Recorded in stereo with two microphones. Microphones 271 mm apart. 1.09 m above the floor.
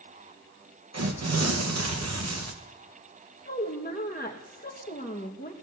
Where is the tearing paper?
70° right (ahead or behind), 1.0 m.